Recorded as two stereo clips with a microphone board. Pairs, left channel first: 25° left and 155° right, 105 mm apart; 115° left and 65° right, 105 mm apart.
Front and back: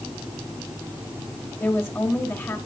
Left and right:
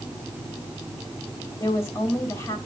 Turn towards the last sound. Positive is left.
turn(degrees=75)